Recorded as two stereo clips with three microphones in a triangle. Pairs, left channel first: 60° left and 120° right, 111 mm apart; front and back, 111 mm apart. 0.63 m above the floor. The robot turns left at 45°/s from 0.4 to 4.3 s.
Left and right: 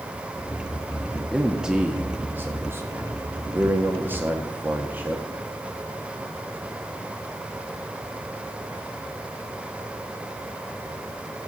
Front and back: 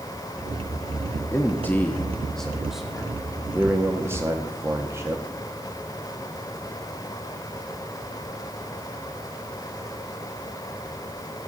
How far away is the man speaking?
About 0.9 m.